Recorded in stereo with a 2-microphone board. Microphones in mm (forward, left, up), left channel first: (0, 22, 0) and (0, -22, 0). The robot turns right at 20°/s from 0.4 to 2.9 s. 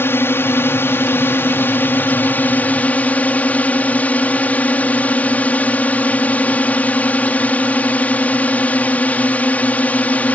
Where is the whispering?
No whispering in this recording.